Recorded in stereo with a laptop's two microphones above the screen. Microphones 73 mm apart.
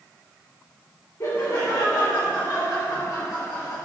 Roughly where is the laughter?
Left.